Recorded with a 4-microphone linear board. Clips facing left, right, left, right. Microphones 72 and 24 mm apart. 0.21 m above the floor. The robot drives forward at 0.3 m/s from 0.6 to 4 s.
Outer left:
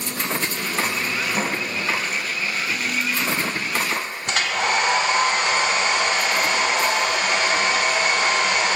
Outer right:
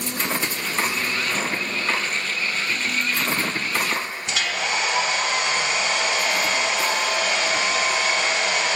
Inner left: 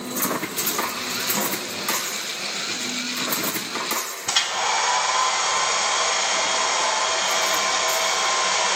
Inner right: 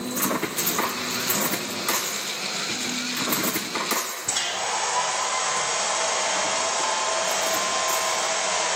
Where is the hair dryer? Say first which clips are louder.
Outer left 4 dB, inner left 6 dB; 45° left (ahead or behind), 1.0 m.